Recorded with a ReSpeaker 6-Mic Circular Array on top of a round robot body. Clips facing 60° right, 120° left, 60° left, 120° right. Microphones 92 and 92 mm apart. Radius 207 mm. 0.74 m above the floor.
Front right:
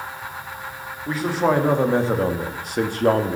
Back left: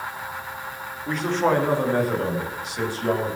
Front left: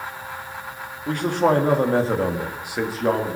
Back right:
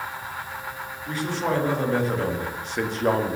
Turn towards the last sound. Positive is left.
turn(degrees=-40)